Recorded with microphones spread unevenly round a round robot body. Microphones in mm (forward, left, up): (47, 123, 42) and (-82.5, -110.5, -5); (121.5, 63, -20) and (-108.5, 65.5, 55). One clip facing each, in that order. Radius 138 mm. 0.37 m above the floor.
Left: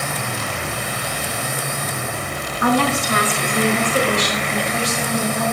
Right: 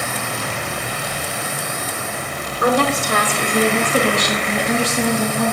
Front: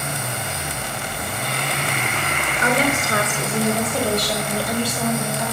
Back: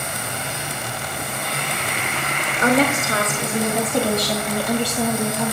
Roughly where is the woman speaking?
Behind right.